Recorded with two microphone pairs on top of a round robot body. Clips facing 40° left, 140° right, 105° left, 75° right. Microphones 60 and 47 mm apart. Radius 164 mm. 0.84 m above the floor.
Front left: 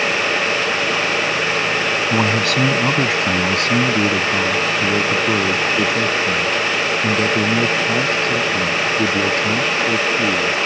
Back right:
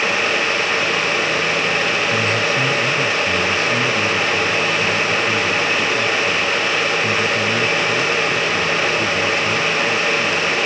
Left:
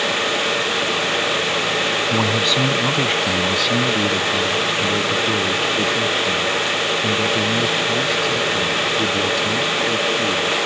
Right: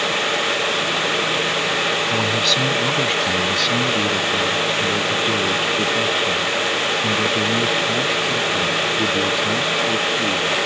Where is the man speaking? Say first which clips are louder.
Front left 1 dB, left 1 dB; 30° left; by 10.6 s straight ahead.